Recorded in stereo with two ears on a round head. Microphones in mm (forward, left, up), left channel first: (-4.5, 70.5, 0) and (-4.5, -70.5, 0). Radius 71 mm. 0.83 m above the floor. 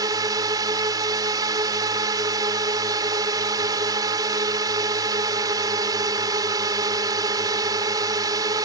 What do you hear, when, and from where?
0.0 s a drone: 25° right (ahead or behind)